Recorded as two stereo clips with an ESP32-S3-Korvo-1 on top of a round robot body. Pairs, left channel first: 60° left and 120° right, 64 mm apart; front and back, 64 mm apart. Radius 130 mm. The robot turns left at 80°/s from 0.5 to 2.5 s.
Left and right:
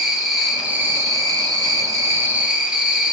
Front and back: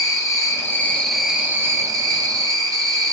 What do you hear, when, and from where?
0.0 s an insect: 35° right, 1.0 m; by 3.1 s 165° left, 1.0 m